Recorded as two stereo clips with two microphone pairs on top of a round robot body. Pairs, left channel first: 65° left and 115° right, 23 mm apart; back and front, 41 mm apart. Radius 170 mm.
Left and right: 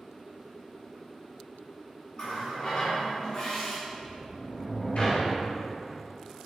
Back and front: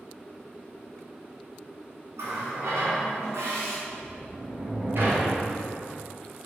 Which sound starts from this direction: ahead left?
A sliding door, at 3.9 s.